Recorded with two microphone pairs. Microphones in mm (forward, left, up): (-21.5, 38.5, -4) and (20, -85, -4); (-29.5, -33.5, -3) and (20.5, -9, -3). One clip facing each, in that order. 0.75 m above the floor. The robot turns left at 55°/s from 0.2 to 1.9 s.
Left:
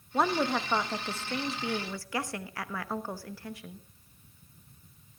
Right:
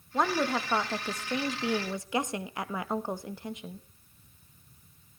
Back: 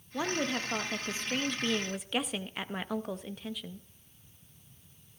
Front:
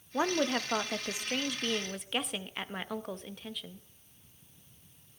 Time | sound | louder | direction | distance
0.1 | a woman speaking | even, front 3 dB | 25° left | 0.8 m